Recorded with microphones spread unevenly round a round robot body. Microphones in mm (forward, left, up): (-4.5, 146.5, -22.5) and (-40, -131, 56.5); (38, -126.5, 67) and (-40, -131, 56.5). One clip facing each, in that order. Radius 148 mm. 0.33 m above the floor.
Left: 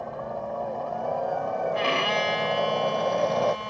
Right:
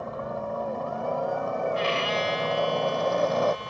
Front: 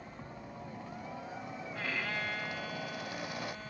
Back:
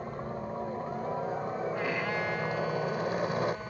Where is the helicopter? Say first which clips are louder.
Right 1 dB, back 11 dB; 170° right; by 3.7 s 175° left.